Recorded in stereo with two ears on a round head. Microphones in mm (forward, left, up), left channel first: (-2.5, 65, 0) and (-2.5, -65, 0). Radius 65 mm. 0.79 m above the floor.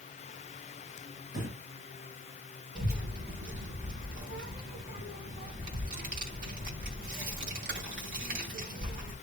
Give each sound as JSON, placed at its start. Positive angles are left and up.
{"t": 1.3, "sound": "breathing", "side_deg": -60, "distance_m": 5.5}
{"t": 2.8, "sound": "a child speaking", "side_deg": -65, "distance_m": 2.5}